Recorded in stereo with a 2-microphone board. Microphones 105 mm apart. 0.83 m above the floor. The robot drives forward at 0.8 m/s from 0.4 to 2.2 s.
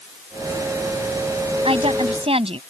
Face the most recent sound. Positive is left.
turn(degrees=-70)  # may be behind; listen again after turning